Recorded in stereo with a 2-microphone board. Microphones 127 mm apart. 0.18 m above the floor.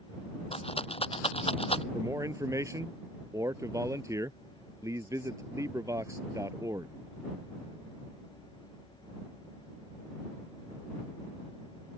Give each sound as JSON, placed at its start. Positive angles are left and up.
{"t": 0.5, "sound": "a rattle", "side_deg": 50}
{"t": 1.9, "sound": "a man speaking", "side_deg": -25}